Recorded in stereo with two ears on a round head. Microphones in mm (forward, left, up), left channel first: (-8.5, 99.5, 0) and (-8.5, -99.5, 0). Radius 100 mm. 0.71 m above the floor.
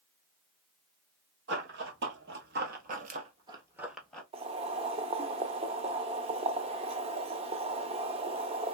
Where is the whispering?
I don't hear whispering.